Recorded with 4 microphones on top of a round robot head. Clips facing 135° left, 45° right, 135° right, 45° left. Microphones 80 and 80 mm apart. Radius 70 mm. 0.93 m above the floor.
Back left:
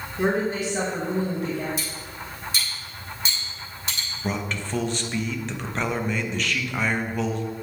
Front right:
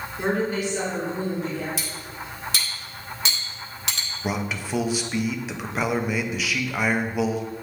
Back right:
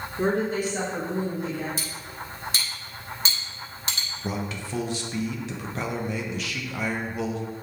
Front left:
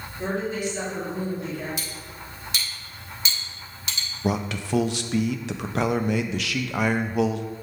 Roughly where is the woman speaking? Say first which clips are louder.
Back left 1 dB, back right 3 dB; behind right.